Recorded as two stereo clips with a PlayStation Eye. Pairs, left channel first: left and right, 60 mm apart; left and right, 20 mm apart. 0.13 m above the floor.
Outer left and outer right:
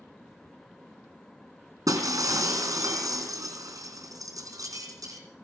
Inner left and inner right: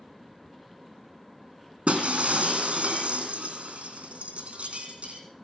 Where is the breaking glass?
75° right (ahead or behind), 3 m.